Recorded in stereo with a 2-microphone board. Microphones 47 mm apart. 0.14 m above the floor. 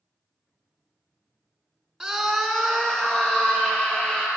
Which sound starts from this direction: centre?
A scream, at 2.0 s.